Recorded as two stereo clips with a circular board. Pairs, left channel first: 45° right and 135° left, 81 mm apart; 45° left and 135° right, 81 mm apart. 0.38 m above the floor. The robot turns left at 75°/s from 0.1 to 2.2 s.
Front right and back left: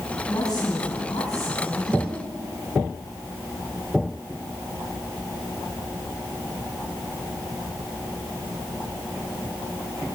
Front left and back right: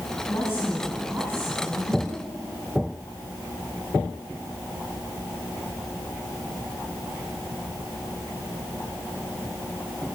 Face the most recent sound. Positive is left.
turn(degrees=-150)